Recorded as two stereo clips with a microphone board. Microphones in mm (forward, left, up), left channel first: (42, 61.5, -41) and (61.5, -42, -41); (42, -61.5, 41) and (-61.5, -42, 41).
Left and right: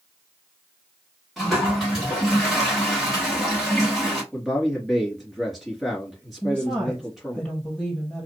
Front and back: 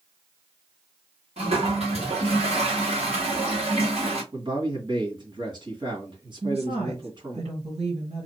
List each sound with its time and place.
1.4 s a toilet flushing: 170° right, 3 m
4.3 s a man speaking: 165° right, 2.5 m
6.4 s a woman speaking: straight behind, 3.5 m